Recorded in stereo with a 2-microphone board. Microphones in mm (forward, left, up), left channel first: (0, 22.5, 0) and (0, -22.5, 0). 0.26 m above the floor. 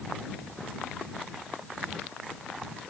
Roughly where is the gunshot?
I don't hear a gunshot.